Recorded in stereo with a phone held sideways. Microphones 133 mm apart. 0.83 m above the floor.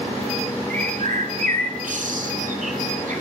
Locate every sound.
0.7 s a bird: 75° right (ahead or behind), 1.3 m